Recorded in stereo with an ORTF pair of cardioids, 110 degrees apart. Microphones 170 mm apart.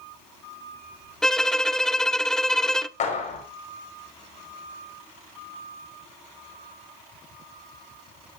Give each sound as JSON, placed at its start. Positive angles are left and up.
{"t": 1.2, "sound": "a violin", "azimuth_deg": 5, "distance_m": 0.6}
{"t": 3.0, "sound": "a clap", "azimuth_deg": 50, "distance_m": 5.0}